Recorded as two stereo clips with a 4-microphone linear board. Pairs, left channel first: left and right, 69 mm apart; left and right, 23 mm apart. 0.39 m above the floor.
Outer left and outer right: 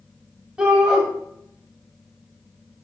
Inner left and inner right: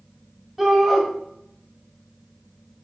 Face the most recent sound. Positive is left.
turn(degrees=-10)  # may be behind; listen again after turning